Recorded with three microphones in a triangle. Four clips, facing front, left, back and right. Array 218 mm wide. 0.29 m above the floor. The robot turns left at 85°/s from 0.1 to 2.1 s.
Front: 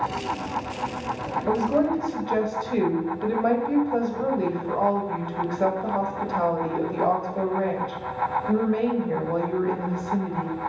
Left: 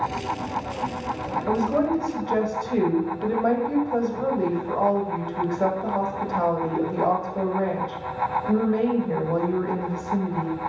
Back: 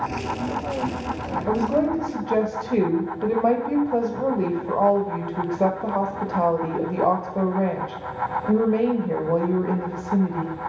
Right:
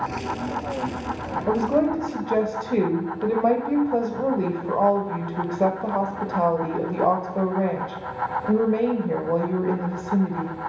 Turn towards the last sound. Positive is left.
turn(degrees=-140)